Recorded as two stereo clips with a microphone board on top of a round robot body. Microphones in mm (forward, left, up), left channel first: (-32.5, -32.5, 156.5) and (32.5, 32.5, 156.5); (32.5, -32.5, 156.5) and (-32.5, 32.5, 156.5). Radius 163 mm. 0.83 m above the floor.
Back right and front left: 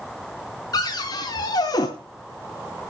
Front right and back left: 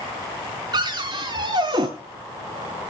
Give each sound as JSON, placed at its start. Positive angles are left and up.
{"t": 0.7, "sound": "a cupboard door", "azimuth_deg": 175, "distance_m": 0.5}